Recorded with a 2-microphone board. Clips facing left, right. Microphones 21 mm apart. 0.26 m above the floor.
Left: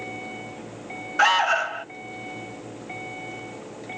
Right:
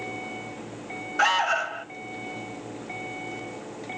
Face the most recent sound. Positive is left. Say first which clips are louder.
# left 3 dB
turn(degrees=10)  # may be behind; listen again after turning